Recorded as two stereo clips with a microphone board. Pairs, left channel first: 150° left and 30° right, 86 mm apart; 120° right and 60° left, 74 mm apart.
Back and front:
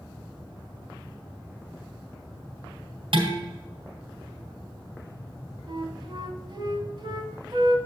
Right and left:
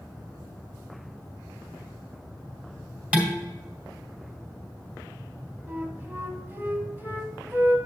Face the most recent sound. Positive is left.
turn(degrees=-5)